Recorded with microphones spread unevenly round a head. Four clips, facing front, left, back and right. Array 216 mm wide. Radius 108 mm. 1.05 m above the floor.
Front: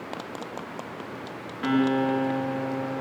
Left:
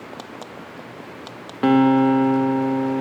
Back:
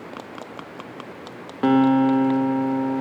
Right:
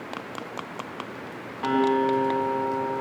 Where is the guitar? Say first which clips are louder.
Left 7 dB, back 7 dB; 120° left, 2 m.